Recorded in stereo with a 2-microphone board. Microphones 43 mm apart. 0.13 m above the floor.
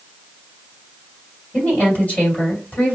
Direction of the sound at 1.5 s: 40° left (ahead or behind).